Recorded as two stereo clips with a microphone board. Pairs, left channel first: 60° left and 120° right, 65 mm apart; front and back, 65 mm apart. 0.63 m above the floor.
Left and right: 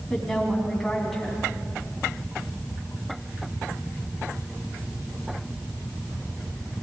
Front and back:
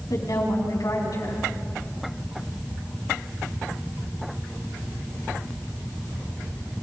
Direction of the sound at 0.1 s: 30° right.